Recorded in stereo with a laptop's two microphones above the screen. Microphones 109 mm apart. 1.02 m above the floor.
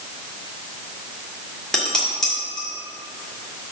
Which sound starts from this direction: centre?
Dishes clattering, at 1.7 s.